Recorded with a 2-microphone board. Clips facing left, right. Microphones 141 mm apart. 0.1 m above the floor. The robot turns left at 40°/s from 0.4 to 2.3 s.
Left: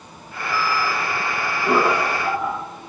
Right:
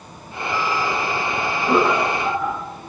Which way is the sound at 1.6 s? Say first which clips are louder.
Right 1 dB; 20° left (ahead or behind).